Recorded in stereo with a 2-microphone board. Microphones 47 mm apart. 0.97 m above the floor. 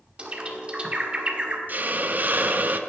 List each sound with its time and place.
0.2 s a bird: 25° right (ahead or behind), 1.3 m
1.7 s a hiss: 40° right (ahead or behind), 0.6 m